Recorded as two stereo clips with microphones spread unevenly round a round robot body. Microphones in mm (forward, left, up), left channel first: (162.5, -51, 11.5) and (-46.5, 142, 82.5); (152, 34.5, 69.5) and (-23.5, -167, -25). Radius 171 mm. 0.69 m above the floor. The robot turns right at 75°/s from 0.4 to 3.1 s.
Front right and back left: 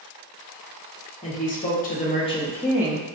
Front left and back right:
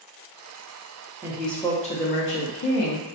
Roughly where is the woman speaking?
Right.